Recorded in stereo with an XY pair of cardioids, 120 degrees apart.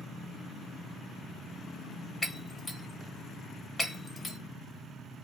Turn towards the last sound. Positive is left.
turn(degrees=10)